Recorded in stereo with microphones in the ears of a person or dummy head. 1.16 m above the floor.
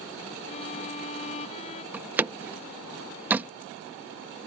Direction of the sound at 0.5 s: 45° left (ahead or behind).